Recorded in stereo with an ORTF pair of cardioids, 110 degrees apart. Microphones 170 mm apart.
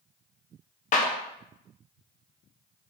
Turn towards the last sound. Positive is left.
turn(degrees=50)